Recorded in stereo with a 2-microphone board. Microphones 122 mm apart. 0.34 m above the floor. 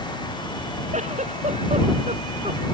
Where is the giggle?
65° right (ahead or behind).